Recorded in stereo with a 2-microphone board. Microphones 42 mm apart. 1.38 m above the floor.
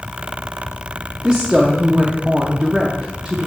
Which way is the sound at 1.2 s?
10° right (ahead or behind).